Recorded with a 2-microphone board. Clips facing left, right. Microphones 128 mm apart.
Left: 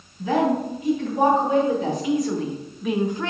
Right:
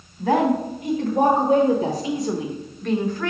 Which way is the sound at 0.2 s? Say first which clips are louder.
Right 2 dB; 65° right (ahead or behind).